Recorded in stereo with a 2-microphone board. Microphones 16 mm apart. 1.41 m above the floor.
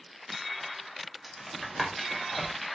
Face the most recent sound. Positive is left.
turn(degrees=-5)  # may be behind; listen again after turning